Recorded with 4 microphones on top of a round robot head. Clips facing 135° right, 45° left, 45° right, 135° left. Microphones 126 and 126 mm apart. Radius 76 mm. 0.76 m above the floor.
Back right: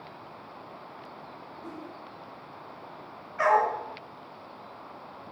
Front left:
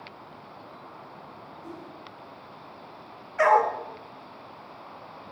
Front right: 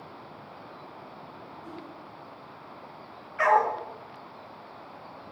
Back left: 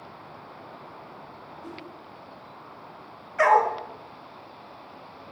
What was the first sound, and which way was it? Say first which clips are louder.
A whoosh: back right 1 dB, back left 2 dB; 145° left.